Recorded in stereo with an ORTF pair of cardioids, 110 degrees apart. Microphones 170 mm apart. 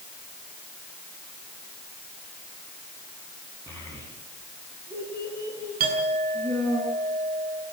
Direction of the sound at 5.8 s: 65° right.